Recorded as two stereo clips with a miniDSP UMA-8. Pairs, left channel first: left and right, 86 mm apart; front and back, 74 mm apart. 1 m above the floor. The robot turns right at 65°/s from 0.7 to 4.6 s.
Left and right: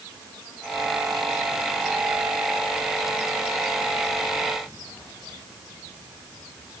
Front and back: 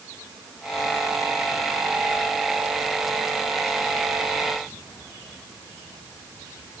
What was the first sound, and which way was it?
Only background noise.